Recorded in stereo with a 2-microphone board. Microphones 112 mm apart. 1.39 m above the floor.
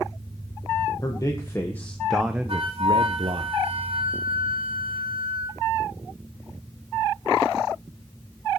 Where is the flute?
50° right (ahead or behind), 1.6 m.